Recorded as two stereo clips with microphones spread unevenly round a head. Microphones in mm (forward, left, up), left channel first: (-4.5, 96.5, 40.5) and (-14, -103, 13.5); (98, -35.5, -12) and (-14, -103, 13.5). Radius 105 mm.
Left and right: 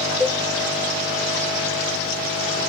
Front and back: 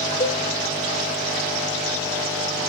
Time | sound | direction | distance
0.2 | a cowbell | 5° right | 1.3 m